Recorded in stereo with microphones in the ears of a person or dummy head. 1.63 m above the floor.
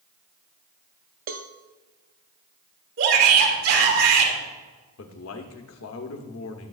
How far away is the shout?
About 1.9 m.